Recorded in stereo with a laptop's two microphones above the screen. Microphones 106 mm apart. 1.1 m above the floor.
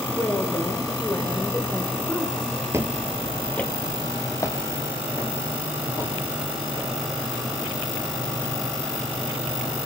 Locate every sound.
0.1 s a woman speaking: 15° left (ahead or behind), 3 m
2.7 s footsteps: 25° right (ahead or behind), 1.2 m; by 6.9 s 35° left (ahead or behind), 6 m